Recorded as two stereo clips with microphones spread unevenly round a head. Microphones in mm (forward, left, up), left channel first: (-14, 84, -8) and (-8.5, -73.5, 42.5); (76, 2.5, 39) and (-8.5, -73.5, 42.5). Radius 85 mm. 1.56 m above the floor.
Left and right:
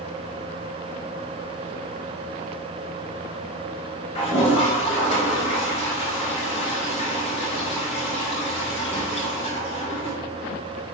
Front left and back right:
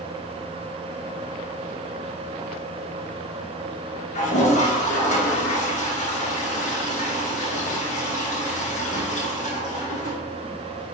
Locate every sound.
4.2 s a toilet flushing: 35° left, 1.8 m